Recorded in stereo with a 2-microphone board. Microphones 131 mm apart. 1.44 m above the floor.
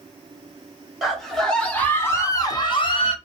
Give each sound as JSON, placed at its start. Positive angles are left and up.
{"t": 1.0, "sound": "a scream", "side_deg": -5, "distance_m": 1.4}